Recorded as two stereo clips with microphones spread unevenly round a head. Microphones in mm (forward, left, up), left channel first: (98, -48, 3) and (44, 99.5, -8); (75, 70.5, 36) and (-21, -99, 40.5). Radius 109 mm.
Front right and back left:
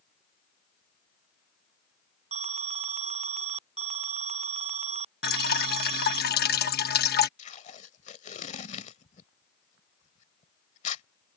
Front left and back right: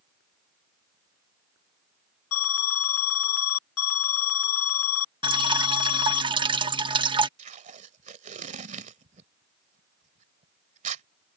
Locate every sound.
2.3 s an alarm: 65° left
5.2 s dripping: 55° right
7.4 s tape being pulled: 80° right